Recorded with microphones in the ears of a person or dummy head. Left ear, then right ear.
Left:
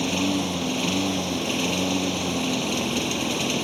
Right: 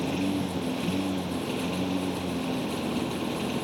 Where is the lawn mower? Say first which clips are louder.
Left 5 dB; 35° left (ahead or behind); by 3.6 s 50° left (ahead or behind).